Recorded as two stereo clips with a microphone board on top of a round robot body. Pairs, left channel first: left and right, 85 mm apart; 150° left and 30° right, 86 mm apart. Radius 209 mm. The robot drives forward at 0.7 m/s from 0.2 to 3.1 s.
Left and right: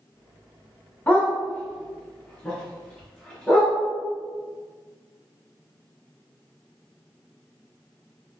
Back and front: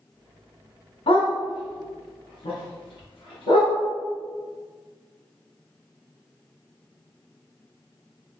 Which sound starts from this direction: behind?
A dog barking, at 1.1 s.